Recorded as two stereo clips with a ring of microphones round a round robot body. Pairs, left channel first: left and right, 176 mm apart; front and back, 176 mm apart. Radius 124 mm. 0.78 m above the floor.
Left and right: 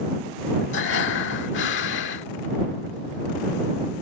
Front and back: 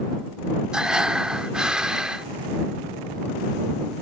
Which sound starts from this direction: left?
Breathing, at 0.7 s.